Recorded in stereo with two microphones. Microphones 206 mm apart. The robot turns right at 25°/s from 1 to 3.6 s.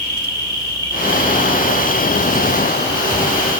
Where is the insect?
20° left, 3 m; by 3.6 s 85° left, 3 m.